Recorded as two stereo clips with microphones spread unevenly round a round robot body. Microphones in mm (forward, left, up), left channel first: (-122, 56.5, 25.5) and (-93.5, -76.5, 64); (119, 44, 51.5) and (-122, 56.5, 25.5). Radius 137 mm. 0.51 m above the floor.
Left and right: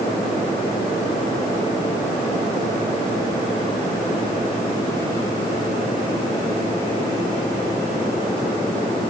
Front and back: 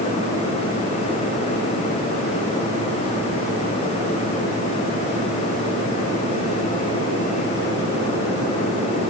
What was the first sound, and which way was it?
Only background noise.